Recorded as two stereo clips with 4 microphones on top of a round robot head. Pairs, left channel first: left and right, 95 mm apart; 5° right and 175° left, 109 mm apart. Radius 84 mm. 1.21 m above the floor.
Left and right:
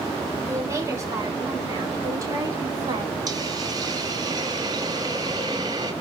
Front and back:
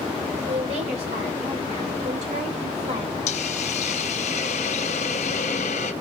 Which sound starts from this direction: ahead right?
A hiss, at 3.3 s.